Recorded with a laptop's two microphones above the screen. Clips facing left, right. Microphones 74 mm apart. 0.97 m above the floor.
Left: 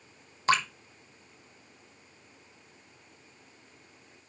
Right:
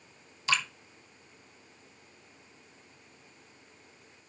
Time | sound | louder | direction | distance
0.5 | dripping | left 5 dB | 45° left (ahead or behind) | 1.3 m